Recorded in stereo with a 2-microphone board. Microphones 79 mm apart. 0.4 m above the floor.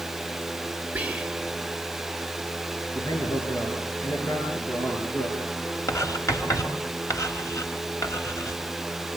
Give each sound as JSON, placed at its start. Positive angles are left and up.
{"t": 0.9, "sound": "whispering", "side_deg": -20, "distance_m": 1.4}
{"t": 3.0, "sound": "a man speaking", "side_deg": 35, "distance_m": 7.0}
{"t": 5.9, "sound": "writing", "side_deg": 40, "distance_m": 3.5}